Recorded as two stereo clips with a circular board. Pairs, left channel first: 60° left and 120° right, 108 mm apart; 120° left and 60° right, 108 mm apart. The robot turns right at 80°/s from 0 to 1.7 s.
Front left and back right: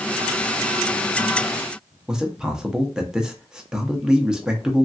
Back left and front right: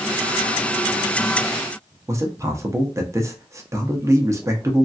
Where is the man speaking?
45° right, 0.6 m.